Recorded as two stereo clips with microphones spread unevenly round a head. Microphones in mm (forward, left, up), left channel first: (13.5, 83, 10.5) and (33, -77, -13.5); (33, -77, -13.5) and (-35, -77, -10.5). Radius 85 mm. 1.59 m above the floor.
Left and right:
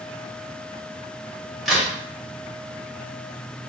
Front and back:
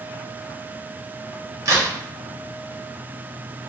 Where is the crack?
Straight behind, 1.0 m.